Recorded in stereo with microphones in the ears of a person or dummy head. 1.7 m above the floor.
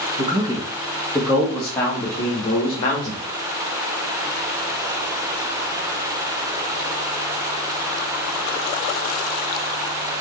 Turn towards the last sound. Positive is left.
turn(degrees=35)  # may be behind; listen again after turning